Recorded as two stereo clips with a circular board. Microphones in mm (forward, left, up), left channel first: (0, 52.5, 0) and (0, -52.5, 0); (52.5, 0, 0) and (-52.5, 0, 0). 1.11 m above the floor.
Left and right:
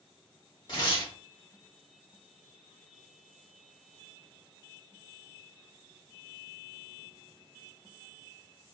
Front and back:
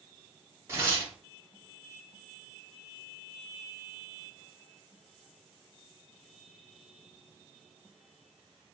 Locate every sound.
0.7 s tearing paper: 120° left, 1.5 m